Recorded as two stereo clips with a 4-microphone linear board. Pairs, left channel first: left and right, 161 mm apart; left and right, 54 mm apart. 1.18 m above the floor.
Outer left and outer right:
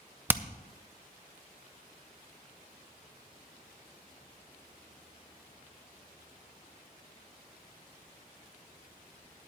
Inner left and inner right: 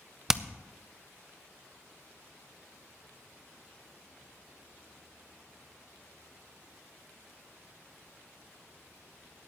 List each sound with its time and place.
0.3 s hammering: 10° right (ahead or behind), 0.5 m